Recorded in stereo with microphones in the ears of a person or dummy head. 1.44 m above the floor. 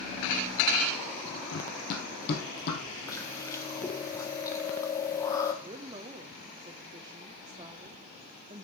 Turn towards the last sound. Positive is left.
turn(degrees=-25)  # may be behind; listen again after turning